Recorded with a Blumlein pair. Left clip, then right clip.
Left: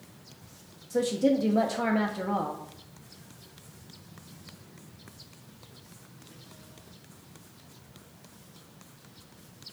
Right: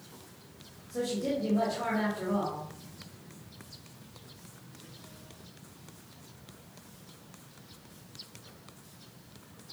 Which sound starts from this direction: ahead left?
A woman speaking, at 0.9 s.